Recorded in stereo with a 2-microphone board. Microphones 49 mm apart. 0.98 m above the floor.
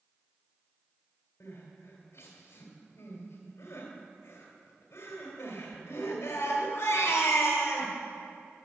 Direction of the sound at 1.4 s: 60° left (ahead or behind).